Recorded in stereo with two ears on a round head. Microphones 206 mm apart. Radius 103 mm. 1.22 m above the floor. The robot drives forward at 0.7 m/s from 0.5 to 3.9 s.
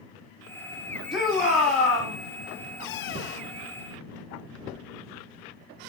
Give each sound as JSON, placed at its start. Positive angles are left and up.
{"t": 1.1, "sound": "a shout", "side_deg": 0, "distance_m": 2.0}